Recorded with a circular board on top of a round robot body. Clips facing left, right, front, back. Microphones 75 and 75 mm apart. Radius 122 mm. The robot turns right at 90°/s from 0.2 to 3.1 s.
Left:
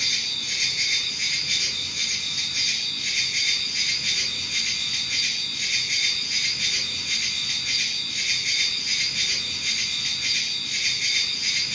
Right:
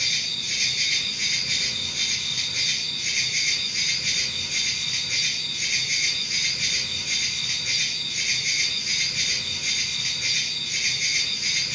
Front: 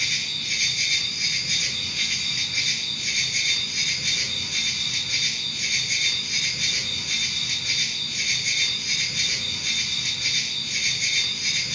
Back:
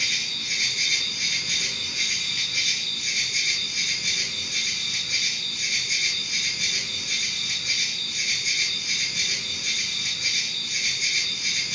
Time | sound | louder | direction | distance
0.0 | an insect | even, even | 90° left | 1.2 m